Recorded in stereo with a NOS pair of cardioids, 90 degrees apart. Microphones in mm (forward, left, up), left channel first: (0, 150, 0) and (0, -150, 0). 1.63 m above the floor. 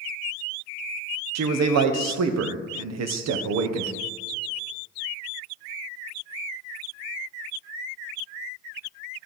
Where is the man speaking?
65° right, 1.2 m.